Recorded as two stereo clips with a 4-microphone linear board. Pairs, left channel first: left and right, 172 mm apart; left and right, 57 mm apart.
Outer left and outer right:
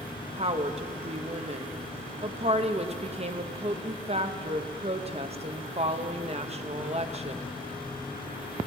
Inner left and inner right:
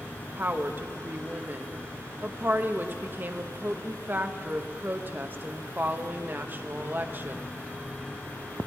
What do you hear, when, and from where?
0.4 s a woman speaking: 35° right (ahead or behind), 0.8 m